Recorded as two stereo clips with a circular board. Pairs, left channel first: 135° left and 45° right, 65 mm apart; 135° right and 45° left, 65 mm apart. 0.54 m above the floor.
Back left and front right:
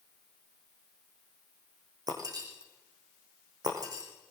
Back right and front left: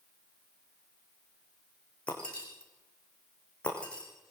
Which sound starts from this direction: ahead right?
Breaking glass, at 2.1 s.